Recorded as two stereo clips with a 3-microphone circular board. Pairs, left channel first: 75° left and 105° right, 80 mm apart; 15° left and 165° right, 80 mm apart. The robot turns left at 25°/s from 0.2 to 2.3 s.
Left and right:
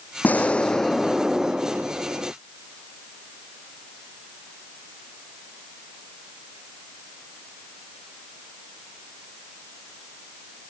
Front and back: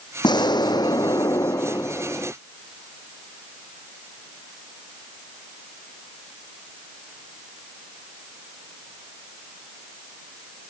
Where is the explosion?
10° left; by 2.3 s 45° right.